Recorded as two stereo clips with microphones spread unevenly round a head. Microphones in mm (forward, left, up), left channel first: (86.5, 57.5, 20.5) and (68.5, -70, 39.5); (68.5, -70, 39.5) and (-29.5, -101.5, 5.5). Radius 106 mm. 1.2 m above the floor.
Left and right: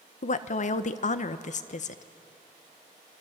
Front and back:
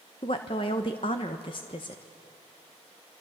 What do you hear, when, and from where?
0.2 s a woman speaking: 80° left, 1.1 m